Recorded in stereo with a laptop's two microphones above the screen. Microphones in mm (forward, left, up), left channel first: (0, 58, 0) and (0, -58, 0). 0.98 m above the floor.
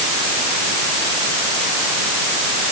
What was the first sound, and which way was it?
Only background noise.